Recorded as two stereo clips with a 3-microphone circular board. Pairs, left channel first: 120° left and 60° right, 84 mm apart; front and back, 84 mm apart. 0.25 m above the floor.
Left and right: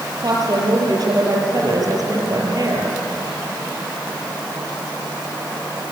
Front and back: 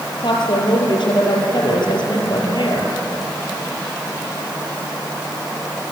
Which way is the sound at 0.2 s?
20° right.